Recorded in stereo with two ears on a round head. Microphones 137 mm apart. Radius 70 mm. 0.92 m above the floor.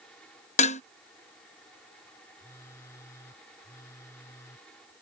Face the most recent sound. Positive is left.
turn(degrees=20)  # may be behind; listen again after turning